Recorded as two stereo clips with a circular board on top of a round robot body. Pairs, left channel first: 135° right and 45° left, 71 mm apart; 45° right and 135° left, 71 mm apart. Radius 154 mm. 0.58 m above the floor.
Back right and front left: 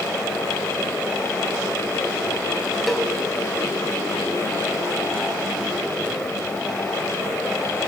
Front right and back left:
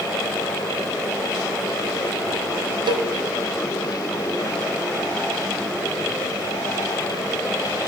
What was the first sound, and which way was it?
A cowbell, 135° left.